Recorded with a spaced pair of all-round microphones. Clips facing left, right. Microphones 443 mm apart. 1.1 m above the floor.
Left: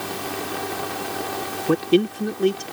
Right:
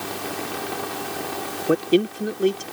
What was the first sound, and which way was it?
A man speaking, 10° left (ahead or behind).